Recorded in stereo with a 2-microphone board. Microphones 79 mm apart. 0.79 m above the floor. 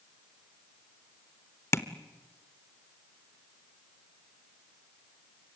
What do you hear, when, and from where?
1.7 s tapping: 35° left (ahead or behind), 1.0 m